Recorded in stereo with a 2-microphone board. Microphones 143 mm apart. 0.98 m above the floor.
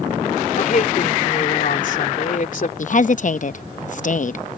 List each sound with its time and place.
0.6 s a woman speaking: 60° left (ahead or behind)
2.8 s a woman speaking: 55° left (ahead or behind)